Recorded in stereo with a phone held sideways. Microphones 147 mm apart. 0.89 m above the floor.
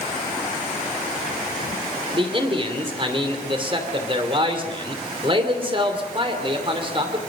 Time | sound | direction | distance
2.1 | a man speaking | 35° right (ahead or behind) | 2.5 m